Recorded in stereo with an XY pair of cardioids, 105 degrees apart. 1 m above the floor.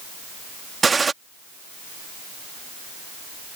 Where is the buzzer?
I don't hear a buzzer.